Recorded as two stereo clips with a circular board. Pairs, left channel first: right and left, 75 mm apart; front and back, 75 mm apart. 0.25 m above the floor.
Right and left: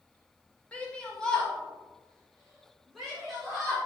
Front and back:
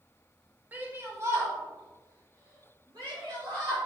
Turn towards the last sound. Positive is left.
turn(degrees=180)